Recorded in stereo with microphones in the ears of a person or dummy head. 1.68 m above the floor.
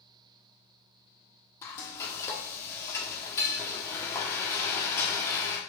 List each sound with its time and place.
1.6 s frying: 15° left (ahead or behind), 1.0 m